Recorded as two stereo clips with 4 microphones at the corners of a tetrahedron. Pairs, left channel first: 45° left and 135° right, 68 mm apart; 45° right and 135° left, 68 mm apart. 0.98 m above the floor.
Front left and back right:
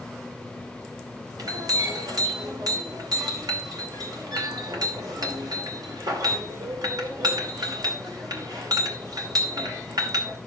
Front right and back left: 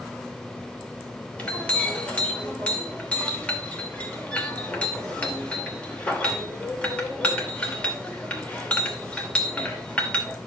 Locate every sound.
1.4 s a clink: 115° right, 2.5 m